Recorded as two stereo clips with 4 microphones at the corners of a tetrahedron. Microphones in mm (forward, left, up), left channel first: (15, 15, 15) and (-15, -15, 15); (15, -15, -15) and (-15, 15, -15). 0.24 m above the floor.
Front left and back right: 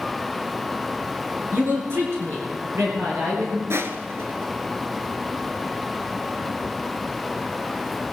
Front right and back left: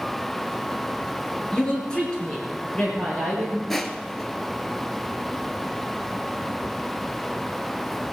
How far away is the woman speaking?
About 3.5 m.